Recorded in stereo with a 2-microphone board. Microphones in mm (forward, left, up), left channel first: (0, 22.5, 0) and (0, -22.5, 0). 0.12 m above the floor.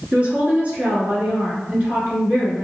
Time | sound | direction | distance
0.1 | a woman speaking | 30° right (ahead or behind) | 1.5 m